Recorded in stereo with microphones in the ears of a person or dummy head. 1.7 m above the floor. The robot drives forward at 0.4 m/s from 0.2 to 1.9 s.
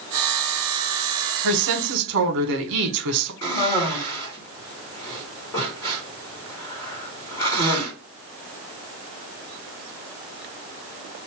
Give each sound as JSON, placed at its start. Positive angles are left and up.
{"t": 1.4, "sound": "a woman speaking", "side_deg": -75, "distance_m": 1.2}
{"t": 3.4, "sound": "a cough", "side_deg": 15, "distance_m": 2.0}